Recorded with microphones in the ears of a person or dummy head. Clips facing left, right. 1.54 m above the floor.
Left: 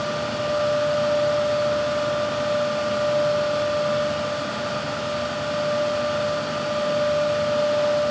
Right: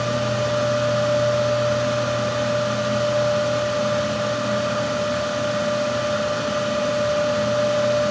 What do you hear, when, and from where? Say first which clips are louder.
0.0 s a fan: right 3 dB; 50° right (ahead or behind), 3.5 m